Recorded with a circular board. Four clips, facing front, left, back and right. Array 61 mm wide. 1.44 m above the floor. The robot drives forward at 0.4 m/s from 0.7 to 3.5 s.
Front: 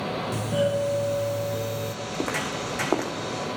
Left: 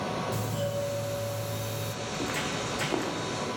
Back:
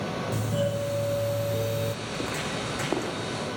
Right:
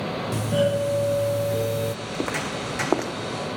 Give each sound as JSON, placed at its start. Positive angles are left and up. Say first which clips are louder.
{"t": 0.3, "sound": "a doorbell", "louder": "right 9 dB, front 5 dB", "azimuth_deg": -70, "distance_m": 1.3}
{"t": 2.0, "sound": "footsteps", "louder": "right 4 dB, front 3 dB", "azimuth_deg": -55, "distance_m": 4.0}